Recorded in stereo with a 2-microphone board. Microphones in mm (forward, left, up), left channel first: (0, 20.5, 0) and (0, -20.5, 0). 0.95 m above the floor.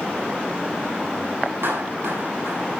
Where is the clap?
70° right (ahead or behind), 6.5 m.